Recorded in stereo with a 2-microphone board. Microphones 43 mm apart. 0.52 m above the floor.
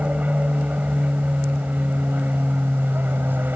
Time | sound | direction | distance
0.0 | an aircraft | 35° right (ahead or behind) | ?